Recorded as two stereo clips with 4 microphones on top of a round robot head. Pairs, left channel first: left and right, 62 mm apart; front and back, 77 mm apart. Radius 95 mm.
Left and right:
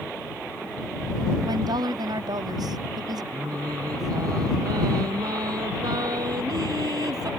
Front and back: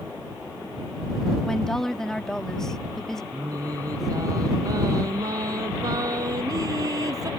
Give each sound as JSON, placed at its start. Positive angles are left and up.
{"t": 1.4, "sound": "a woman speaking", "azimuth_deg": -80}
{"t": 3.3, "sound": "singing", "azimuth_deg": -125}